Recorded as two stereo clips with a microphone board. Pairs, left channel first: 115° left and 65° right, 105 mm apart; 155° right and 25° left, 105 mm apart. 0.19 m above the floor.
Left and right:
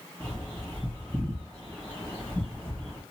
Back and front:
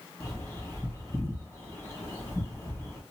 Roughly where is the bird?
Behind.